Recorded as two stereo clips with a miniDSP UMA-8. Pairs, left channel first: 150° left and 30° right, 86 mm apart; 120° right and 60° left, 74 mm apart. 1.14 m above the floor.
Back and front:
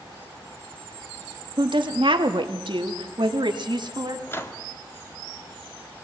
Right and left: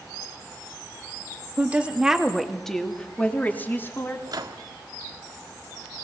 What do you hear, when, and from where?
1.6 s a woman speaking: 10° right, 2.5 m; by 4.2 s 65° right, 3.5 m
4.3 s a microwave: 90° left, 1.7 m